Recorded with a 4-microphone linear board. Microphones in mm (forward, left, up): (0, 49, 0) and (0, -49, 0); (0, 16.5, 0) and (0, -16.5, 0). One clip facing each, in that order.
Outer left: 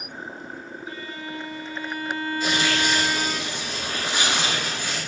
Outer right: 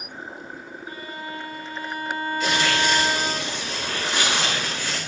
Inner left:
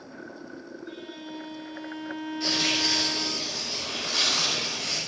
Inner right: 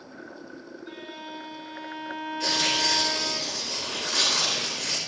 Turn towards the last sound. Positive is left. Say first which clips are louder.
# outer right 2 dB, inner right 1 dB
turn(degrees=-75)  # may be behind; listen again after turning